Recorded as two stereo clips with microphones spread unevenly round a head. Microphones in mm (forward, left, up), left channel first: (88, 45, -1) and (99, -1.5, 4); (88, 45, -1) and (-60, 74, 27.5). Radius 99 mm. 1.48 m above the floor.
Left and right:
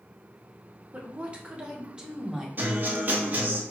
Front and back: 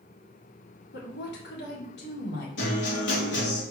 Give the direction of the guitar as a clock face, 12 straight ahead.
1 o'clock.